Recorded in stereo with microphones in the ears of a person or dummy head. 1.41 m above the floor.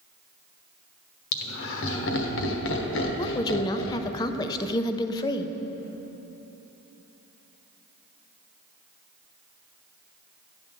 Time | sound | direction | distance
1.3 | laughter | 70° left (ahead or behind) | 1.3 m
3.2 | a woman speaking | 25° left (ahead or behind) | 0.5 m